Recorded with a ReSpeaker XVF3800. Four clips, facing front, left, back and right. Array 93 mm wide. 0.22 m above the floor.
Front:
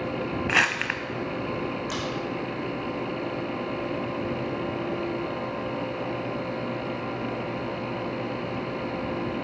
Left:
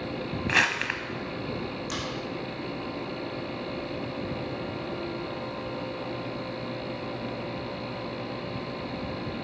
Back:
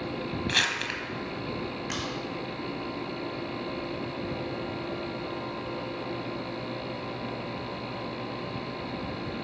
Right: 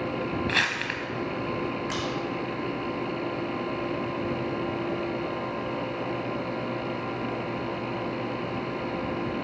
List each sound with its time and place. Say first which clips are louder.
0.5 s crumpling: left 2 dB, front 7 dB; 20° left, 0.8 m
1.9 s a crack: right 3 dB, front 3 dB; 140° right, 2.5 m